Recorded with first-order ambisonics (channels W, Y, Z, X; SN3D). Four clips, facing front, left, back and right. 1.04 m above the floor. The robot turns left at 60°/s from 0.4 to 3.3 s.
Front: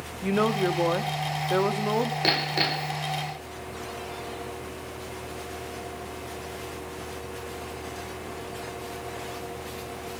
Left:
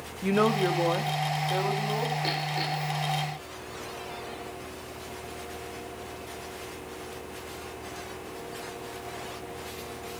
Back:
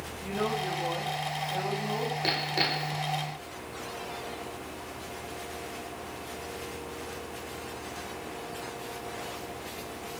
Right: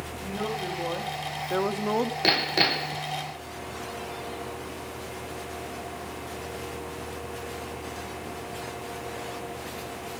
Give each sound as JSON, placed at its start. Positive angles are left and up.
{"t": 0.2, "sound": "a woman speaking", "azimuth_deg": 45, "distance_m": 2.5}
{"t": 2.2, "sound": "hammering", "azimuth_deg": -55, "distance_m": 0.8}